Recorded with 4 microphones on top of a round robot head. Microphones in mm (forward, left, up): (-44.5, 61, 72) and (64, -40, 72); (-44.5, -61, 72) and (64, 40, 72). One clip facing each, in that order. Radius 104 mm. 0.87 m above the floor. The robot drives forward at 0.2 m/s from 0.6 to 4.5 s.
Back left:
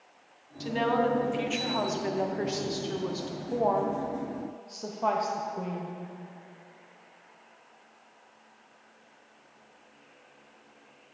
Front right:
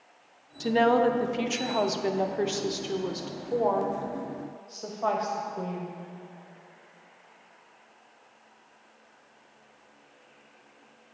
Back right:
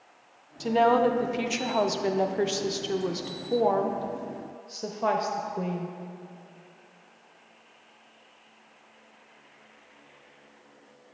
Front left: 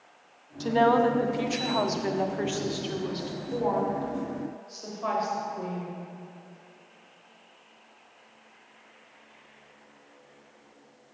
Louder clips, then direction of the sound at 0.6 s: Front right 5 dB, even; 55° right.